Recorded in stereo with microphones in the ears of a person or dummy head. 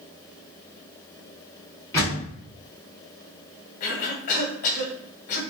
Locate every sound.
1.9 s a door slam: 15° left (ahead or behind), 2 m
3.8 s a cough: 50° left (ahead or behind), 1.3 m